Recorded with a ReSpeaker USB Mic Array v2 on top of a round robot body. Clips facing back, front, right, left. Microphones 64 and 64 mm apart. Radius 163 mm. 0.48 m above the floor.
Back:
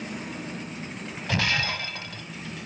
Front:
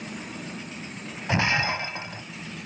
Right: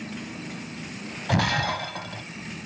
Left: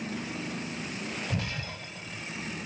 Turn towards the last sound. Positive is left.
turn(degrees=-65)